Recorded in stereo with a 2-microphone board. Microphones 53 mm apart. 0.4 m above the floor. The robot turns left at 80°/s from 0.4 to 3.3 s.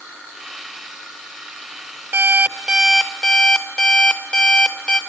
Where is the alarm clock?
115° right, 0.7 m; by 5.0 s 155° left, 0.7 m.